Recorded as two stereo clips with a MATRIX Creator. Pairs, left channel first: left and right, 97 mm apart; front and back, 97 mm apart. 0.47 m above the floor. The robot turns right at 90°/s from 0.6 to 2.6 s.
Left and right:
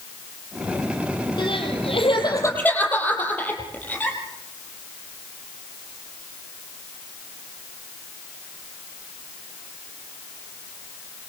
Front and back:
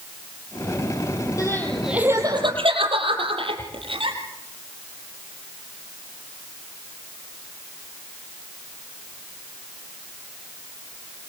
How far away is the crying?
About 5.5 m.